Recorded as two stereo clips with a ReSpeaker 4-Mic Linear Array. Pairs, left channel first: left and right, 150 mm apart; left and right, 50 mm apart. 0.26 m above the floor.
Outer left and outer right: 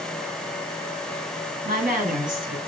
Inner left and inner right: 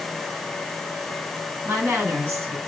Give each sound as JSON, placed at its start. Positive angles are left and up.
{"t": 1.6, "sound": "a woman speaking", "side_deg": -65, "distance_m": 3.0}